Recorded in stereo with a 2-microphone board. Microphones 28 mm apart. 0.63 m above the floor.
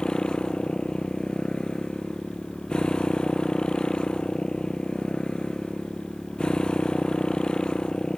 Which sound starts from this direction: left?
A motorcycle, at 0.0 s.